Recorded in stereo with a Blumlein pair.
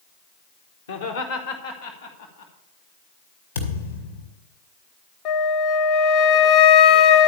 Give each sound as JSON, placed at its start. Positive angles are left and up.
{"t": 0.9, "sound": "laughter", "azimuth_deg": 65, "distance_m": 0.9}
{"t": 3.5, "sound": "a thud", "azimuth_deg": 65, "distance_m": 2.0}
{"t": 5.2, "sound": "a flute", "azimuth_deg": 35, "distance_m": 0.6}